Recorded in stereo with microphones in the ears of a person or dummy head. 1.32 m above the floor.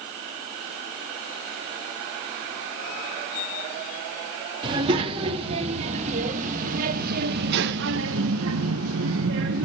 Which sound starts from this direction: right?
A child speaking, at 4.6 s.